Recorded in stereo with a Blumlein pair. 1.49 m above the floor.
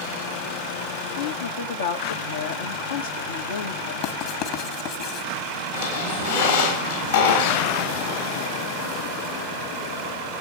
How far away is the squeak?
About 7 m.